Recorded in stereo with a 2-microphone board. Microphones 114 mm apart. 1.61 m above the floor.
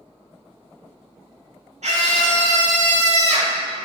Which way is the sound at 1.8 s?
85° right.